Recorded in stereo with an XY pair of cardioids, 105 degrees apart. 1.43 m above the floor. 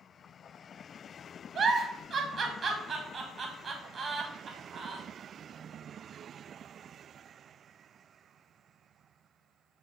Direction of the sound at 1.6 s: 35° right.